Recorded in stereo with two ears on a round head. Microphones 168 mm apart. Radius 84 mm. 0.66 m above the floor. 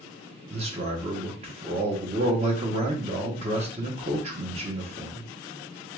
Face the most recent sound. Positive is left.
turn(degrees=-35)  # may be behind; listen again after turning